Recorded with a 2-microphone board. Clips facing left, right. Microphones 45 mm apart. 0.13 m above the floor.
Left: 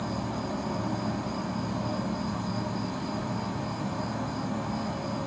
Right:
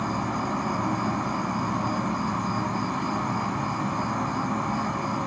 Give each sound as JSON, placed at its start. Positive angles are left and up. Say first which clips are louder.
{"t": 0.0, "sound": "an insect", "louder": "right 5 dB", "side_deg": -60, "distance_m": 0.9}